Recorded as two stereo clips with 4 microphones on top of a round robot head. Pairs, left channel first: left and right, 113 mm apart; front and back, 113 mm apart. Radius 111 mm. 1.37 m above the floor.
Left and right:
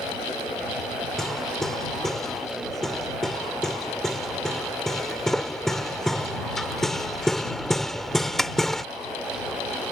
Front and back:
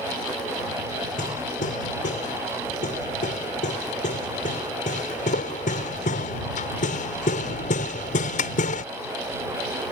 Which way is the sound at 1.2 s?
Straight ahead.